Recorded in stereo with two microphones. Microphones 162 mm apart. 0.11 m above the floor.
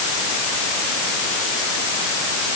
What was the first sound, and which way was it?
Only background noise.